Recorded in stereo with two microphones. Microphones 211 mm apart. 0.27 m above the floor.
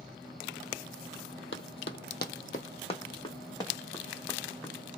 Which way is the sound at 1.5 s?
70° left (ahead or behind).